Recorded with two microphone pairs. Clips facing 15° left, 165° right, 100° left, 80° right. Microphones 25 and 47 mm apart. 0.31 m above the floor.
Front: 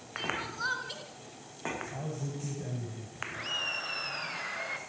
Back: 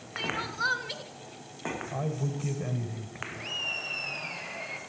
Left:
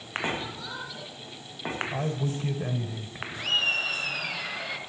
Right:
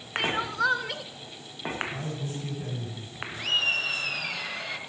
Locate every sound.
0.2 s crying: 85° right, 2 m
1.9 s a man speaking: 140° left, 1.6 m
3.3 s laughter: 20° left, 4 m